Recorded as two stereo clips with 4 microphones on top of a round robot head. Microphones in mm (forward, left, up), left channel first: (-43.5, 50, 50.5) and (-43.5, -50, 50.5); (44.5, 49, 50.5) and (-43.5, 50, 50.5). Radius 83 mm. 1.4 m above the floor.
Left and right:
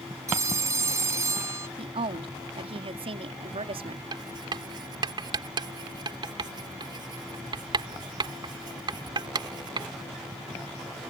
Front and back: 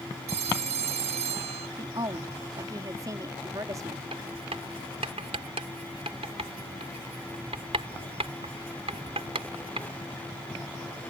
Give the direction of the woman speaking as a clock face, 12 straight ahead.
4 o'clock.